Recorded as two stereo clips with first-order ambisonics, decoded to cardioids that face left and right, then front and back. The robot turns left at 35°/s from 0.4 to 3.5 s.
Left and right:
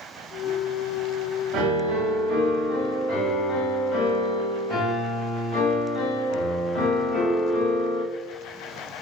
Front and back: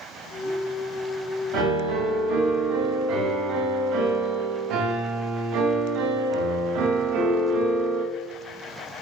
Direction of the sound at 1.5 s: 130° right.